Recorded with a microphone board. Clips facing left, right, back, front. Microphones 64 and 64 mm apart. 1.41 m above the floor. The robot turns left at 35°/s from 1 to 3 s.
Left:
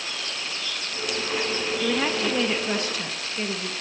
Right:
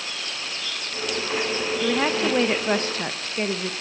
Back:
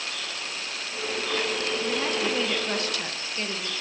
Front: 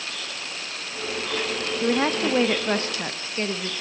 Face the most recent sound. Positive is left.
turn(degrees=-55)